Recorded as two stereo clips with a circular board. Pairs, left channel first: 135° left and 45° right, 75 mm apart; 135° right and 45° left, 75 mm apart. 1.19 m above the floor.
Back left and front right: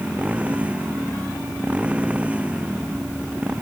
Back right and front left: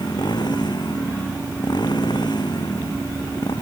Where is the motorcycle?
115° right.